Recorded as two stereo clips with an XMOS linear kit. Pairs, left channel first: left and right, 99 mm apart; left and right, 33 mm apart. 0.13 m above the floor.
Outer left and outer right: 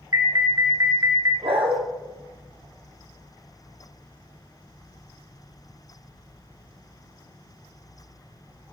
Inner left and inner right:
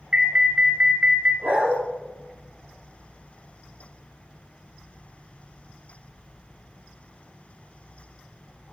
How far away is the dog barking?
About 2 m.